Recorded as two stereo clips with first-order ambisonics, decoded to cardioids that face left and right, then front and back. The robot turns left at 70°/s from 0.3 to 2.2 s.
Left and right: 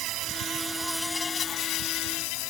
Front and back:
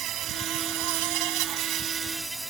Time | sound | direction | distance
0.0 | an insect | 130° right | ?